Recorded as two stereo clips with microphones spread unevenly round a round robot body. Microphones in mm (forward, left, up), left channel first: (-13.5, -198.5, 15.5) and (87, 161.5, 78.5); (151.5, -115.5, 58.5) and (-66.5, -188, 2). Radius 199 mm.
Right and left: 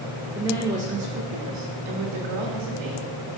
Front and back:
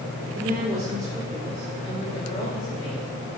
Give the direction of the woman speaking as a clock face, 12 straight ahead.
6 o'clock.